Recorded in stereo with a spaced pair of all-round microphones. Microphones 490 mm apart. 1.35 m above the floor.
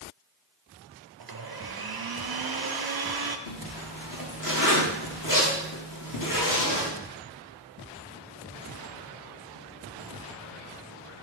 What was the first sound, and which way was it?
A blender, 50° right (ahead or behind).